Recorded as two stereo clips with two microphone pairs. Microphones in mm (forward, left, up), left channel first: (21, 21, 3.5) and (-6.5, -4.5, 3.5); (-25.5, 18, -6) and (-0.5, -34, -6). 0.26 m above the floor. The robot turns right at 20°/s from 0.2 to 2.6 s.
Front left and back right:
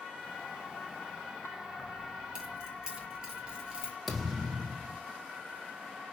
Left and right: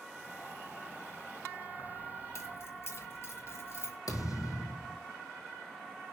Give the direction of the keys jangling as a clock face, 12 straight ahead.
7 o'clock.